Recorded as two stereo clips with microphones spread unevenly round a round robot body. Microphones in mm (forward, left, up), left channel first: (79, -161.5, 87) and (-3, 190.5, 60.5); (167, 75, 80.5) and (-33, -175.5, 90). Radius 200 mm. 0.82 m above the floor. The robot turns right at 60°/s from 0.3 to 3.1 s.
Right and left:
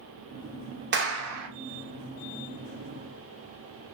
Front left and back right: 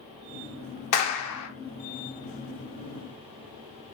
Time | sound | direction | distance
0.9 | a clap | 45° left | 0.7 m